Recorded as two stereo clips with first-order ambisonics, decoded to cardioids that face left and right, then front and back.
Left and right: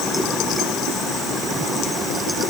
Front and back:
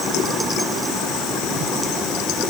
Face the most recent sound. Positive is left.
No sound to turn to.